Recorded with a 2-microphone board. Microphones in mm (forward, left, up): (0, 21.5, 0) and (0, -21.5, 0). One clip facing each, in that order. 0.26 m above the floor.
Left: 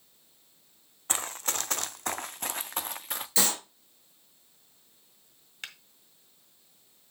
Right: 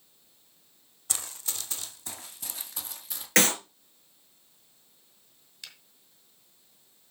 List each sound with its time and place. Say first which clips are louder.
1.1 s running footsteps: left 6 dB; 40° left (ahead or behind), 0.6 m; by 3.3 s 55° left (ahead or behind), 1.2 m
3.4 s a clap: right 7 dB; 75° right (ahead or behind), 4 m
5.6 s a finger snap: left 6 dB; 50° left (ahead or behind), 1.9 m